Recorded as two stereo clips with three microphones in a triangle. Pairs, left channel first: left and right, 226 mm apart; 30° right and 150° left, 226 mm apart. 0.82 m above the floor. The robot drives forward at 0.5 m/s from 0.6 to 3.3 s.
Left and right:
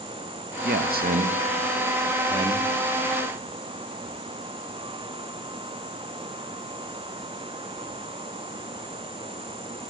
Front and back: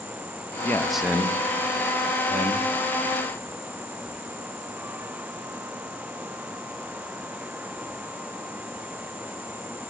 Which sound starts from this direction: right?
A man speaking, at 0.6 s.